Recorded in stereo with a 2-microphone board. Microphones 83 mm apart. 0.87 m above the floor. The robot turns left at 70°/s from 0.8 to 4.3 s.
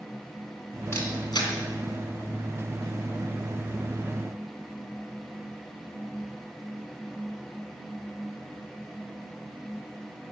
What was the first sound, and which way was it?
A camera shutter, 40° left (ahead or behind).